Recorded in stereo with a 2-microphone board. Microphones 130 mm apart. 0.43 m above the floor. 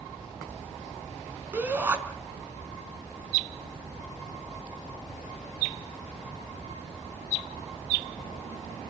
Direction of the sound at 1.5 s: 15° right (ahead or behind).